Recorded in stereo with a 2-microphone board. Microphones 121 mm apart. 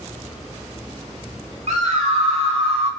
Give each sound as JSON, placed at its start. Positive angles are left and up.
{"t": 1.7, "sound": "a scream", "side_deg": -65, "distance_m": 3.0}